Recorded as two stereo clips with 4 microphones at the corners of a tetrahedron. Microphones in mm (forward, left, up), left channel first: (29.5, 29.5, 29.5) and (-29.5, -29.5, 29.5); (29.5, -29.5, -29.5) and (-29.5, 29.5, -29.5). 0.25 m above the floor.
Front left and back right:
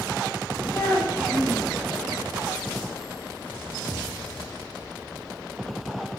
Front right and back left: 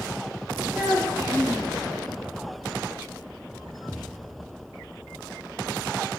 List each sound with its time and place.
0.7 s a child speaking: 105° left, 1.2 m